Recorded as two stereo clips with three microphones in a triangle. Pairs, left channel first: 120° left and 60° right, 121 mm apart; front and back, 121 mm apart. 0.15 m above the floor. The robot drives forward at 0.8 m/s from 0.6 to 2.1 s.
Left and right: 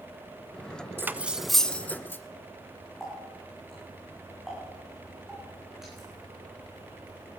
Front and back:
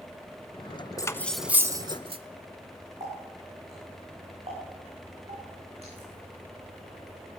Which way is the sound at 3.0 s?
145° right.